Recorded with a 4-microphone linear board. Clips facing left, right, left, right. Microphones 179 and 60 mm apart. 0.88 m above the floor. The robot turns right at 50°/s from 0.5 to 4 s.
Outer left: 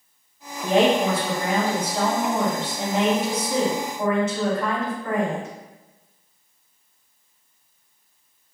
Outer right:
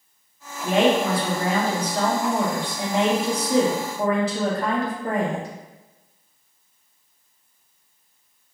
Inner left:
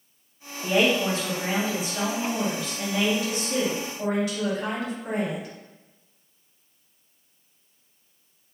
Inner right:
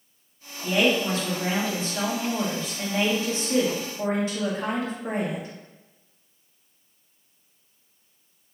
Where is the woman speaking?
105° left, 1.0 m; by 5.5 s 90° right, 1.0 m.